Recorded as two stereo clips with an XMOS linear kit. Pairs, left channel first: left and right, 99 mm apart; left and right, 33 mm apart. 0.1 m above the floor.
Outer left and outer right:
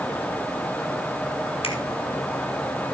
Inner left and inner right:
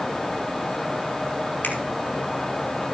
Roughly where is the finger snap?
Left.